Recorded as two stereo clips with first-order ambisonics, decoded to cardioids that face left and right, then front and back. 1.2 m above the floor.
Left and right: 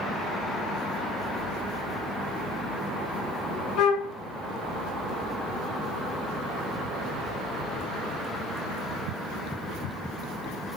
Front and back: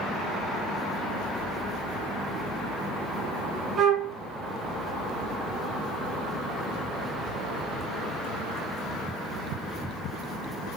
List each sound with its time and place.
3.8 s a flute: 125° left, 0.6 m